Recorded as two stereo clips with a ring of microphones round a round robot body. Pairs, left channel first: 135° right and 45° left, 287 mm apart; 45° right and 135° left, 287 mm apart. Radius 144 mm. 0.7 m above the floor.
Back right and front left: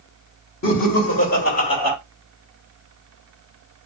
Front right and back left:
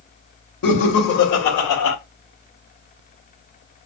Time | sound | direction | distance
0.6 | laughter | 90° right | 1.7 m